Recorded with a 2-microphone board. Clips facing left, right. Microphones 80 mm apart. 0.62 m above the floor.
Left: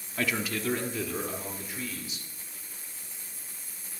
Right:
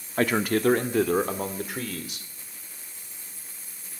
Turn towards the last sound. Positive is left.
turn(degrees=-70)  # may be behind; listen again after turning